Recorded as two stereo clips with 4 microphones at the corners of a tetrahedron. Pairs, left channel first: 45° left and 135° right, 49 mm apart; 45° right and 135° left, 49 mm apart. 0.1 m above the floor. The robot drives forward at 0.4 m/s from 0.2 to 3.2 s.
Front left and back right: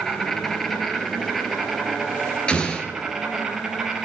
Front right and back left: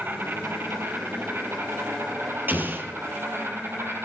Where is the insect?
125° left, 2.5 m; by 4.0 s 145° left, 3.5 m.